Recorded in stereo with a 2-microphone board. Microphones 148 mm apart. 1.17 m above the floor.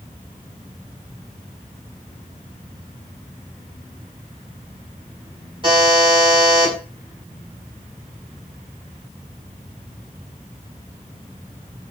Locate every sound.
5.6 s a buzzer: 35° right (ahead or behind), 6 m